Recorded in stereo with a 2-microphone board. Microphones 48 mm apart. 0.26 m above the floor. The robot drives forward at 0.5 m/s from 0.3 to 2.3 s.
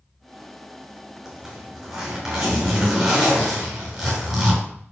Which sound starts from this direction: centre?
A zipper, at 1.2 s.